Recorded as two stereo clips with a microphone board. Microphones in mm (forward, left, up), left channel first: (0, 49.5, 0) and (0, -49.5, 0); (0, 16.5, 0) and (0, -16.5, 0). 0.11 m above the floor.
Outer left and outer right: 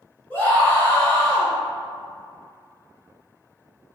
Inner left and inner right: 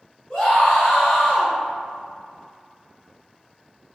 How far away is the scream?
About 1.2 m.